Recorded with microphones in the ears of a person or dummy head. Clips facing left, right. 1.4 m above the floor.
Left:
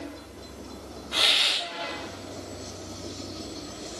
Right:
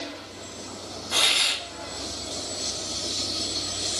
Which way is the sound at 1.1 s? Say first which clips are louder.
Even; 55° right (ahead or behind).